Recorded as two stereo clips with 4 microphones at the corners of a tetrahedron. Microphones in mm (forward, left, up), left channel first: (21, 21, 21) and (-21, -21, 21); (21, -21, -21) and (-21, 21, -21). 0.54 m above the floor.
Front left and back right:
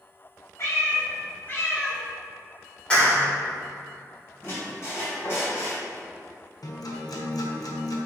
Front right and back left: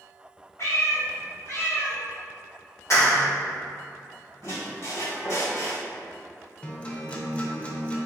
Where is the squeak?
5° right, 2.0 m.